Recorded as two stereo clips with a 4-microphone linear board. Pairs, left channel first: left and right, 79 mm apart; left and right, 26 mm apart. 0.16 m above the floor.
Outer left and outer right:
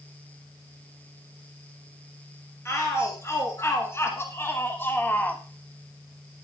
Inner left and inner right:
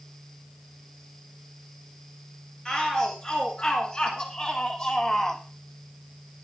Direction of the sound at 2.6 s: 35° left (ahead or behind).